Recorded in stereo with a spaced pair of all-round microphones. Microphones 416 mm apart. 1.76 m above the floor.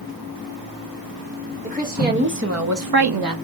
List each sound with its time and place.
1.6 s a woman speaking: 20° right (ahead or behind), 2 m; by 3.4 s 50° right (ahead or behind), 0.7 m